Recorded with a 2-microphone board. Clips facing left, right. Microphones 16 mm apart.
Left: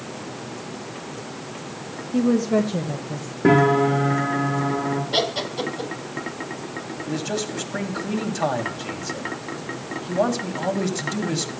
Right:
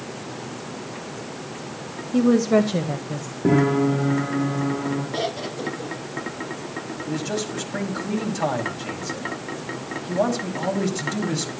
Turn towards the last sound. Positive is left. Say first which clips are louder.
# left 1 dB
turn(degrees=5)  # may be behind; listen again after turning